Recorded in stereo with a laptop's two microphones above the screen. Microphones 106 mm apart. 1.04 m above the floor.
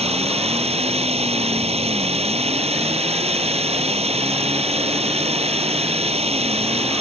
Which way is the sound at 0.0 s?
75° right (ahead or behind).